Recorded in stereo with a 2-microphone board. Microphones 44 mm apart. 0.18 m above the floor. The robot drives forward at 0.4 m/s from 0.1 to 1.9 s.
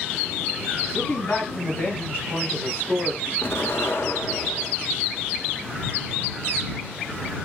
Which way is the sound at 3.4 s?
65° left (ahead or behind).